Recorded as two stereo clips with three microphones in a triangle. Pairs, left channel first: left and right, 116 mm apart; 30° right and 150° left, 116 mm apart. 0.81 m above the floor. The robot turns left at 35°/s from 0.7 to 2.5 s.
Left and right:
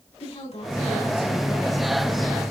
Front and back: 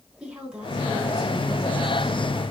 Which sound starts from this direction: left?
A woman speaking, at 0.2 s.